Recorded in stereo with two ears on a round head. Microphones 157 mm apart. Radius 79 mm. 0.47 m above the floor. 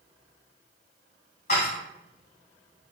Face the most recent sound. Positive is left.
turn(degrees=45)  # may be behind; listen again after turning